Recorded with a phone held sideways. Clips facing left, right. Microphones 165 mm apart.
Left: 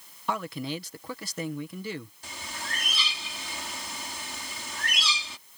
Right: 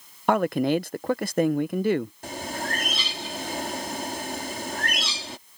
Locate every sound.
0.3 s a man speaking: 60° right (ahead or behind)
2.2 s a bird: 60° right (ahead or behind)